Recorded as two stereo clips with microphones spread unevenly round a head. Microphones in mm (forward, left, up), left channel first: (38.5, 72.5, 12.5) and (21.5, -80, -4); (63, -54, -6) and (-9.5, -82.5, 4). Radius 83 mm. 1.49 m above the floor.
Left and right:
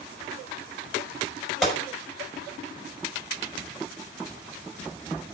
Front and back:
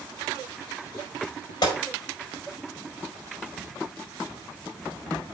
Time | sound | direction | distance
1.6 | a gunshot | 10° right | 4.5 m